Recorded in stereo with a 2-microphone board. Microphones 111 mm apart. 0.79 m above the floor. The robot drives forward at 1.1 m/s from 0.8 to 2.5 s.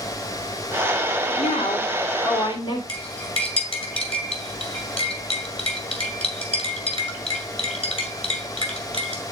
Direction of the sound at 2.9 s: 60° left (ahead or behind).